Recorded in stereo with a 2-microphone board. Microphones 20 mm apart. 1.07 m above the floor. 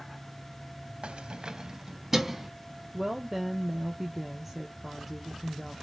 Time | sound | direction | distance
1.0 | keys jangling | 70° right (ahead or behind) | 0.5 m
2.9 | a woman speaking | 10° right (ahead or behind) | 0.6 m